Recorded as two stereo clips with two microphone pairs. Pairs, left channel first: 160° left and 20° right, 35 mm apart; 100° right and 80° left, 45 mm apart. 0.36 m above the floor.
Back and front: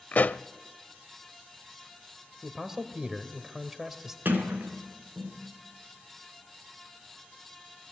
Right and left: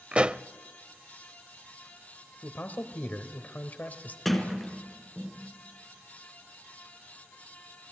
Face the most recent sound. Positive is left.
turn(degrees=-10)